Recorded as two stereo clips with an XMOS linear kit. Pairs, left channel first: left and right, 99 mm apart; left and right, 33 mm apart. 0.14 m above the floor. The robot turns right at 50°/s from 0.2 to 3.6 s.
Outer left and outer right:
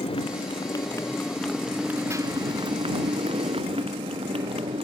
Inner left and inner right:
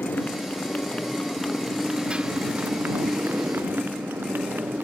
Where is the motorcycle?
115° left; by 4.8 s 75° right.